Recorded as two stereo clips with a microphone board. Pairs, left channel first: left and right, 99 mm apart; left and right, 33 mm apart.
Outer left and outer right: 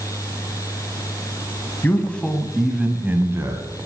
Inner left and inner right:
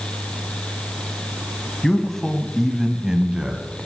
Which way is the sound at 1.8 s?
20° left (ahead or behind).